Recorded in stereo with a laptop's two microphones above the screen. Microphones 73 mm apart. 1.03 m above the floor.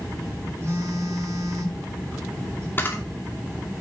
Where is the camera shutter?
30° left (ahead or behind), 2.5 m.